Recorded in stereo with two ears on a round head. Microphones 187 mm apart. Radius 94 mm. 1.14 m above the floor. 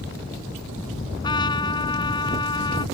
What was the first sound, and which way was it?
A trumpet, 20° left (ahead or behind).